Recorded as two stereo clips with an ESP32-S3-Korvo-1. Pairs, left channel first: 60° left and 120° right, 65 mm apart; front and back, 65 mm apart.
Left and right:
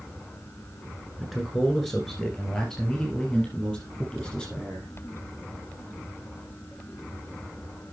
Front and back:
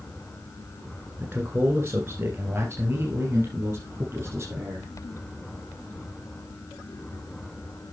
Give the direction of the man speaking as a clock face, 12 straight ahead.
7 o'clock.